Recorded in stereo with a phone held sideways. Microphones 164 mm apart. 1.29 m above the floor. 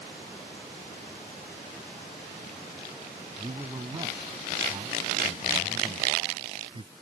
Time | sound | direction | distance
3.4 | a man speaking | 30° right (ahead or behind) | ?